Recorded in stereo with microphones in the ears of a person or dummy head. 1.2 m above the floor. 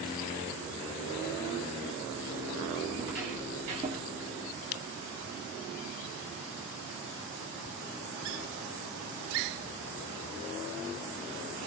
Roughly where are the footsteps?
Centre.